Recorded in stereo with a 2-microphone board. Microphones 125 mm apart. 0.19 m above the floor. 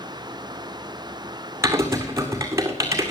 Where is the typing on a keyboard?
25° right (ahead or behind), 2 m.